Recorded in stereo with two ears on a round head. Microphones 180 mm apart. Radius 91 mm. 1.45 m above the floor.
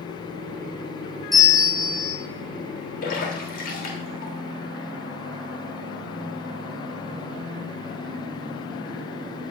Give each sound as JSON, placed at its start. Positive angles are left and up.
{"t": 1.3, "sound": "a bell", "side_deg": 0, "distance_m": 1.9}
{"t": 3.0, "sound": "a splash", "side_deg": 50, "distance_m": 2.5}